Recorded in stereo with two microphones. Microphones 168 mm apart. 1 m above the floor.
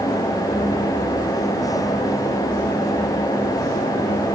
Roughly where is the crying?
I don't hear crying.